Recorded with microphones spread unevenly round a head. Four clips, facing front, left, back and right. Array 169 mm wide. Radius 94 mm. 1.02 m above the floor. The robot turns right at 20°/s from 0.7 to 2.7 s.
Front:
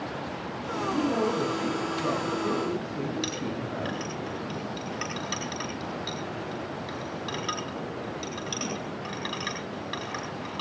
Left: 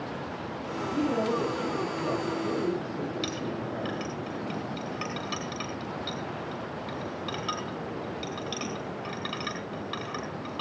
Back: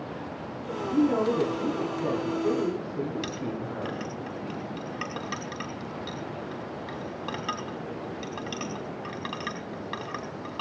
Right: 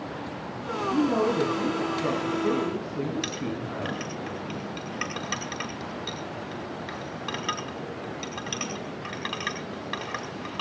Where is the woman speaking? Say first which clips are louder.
Right 4 dB, back 3 dB; 120° right, 9 m; by 4.0 s 80° right, 9 m.